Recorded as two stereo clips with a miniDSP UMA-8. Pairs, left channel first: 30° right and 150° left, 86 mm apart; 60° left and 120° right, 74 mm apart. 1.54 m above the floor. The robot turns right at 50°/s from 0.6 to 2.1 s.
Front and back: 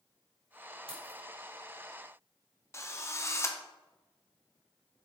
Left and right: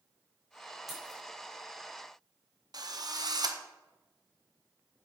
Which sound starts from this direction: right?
A drill, at 2.7 s.